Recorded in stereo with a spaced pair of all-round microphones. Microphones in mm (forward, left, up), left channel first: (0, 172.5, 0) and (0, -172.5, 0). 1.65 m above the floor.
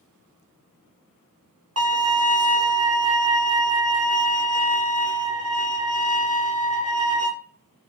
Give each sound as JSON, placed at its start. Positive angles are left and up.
{"t": 1.8, "sound": "a violin", "side_deg": -45, "distance_m": 0.8}